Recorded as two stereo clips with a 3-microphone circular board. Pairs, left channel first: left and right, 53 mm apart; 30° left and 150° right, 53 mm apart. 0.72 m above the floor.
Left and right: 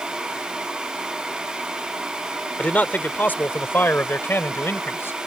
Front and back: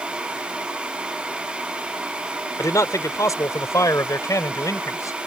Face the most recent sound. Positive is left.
turn(degrees=45)